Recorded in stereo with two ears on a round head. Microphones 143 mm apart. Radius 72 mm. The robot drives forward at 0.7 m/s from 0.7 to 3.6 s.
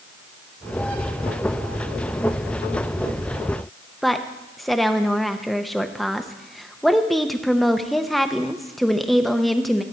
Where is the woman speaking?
Centre (ahead or behind), 0.5 m.